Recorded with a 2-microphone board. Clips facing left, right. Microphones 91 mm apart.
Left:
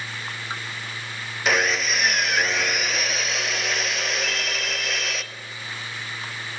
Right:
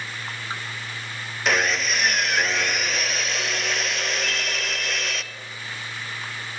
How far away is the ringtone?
About 6.5 m.